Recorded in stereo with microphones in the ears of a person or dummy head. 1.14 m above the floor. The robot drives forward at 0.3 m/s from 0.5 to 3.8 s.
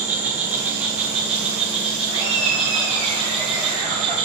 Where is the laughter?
30° left (ahead or behind), 4.5 m; by 4.2 s 25° left (ahead or behind), 5 m.